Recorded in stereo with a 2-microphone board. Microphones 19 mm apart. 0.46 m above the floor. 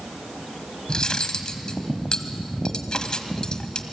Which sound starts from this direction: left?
Cutlery clinking, at 0.9 s.